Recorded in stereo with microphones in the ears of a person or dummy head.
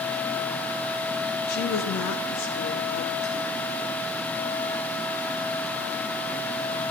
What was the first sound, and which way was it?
A woman speaking, 60° left (ahead or behind).